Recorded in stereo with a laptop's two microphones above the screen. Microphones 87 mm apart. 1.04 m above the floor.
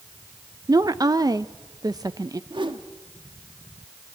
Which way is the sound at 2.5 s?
70° right (ahead or behind).